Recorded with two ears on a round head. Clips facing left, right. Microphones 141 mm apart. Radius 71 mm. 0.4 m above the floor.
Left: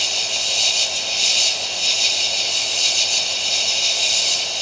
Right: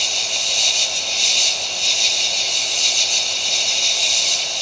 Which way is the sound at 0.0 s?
5° right (ahead or behind).